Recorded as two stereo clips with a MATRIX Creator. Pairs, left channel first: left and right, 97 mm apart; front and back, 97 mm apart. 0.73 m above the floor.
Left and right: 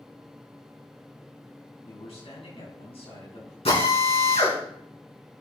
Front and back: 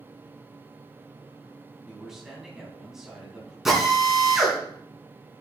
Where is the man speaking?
95° left, 5 m.